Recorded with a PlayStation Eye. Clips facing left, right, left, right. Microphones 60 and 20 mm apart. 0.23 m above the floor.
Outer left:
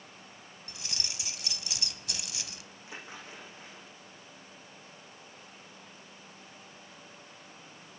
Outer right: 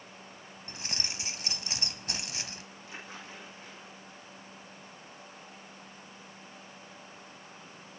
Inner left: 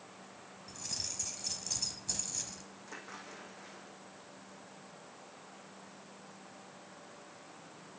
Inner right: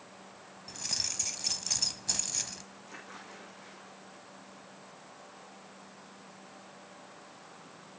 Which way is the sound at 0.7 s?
40° right (ahead or behind).